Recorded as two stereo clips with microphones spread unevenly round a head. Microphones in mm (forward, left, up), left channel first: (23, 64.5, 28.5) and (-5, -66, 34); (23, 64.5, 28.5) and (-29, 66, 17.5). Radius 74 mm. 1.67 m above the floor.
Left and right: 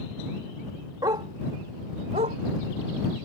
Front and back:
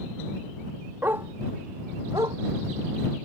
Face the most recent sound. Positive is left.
turn(degrees=-140)